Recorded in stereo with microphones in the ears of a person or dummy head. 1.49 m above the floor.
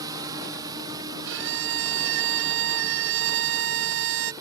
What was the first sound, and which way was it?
A drone, 20° right (ahead or behind).